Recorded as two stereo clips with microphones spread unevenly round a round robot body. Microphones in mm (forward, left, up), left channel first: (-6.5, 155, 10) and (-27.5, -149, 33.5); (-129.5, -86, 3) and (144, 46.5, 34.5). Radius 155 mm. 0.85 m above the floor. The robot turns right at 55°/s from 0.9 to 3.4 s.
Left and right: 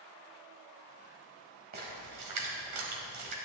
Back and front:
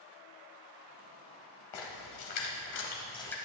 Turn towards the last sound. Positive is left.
turn(degrees=-65)